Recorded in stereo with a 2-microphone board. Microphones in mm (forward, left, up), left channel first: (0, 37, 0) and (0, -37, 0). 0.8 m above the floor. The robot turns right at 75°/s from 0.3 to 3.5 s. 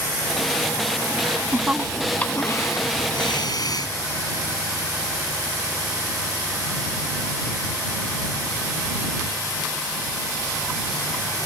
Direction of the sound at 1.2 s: 55° right (ahead or behind).